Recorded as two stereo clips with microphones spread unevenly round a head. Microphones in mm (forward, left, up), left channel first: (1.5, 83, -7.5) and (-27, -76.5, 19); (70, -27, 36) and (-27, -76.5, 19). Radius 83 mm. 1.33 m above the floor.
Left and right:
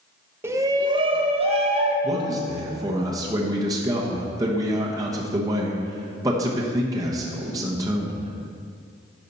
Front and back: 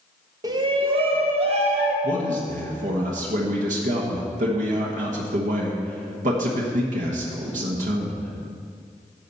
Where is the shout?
Straight behind, 0.6 m; by 1.9 s 155° right, 1.5 m.